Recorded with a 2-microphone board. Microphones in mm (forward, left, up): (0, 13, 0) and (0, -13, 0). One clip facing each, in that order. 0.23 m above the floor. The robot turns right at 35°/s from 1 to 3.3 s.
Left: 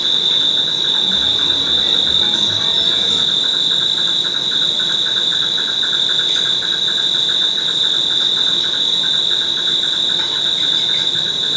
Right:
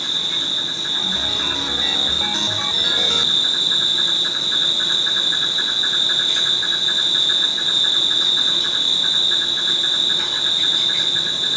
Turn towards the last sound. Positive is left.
turn(degrees=160)